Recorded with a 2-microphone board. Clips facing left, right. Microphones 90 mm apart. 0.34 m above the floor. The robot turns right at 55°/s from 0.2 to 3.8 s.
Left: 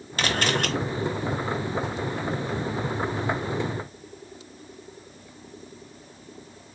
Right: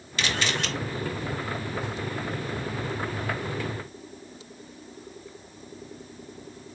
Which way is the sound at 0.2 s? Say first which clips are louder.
Left 3 dB; 45° left (ahead or behind).